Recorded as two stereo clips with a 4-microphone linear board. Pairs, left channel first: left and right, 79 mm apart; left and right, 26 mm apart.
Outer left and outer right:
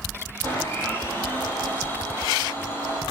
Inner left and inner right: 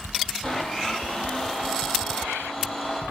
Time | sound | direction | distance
0.4 | a blender | 25° left (ahead or behind) | 4.5 m